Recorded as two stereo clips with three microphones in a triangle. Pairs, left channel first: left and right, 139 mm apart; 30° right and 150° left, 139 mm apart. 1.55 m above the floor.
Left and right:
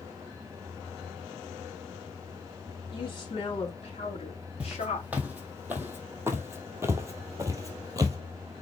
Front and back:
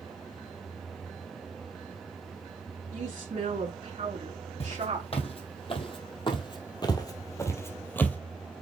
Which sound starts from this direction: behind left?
A woman speaking, at 2.9 s.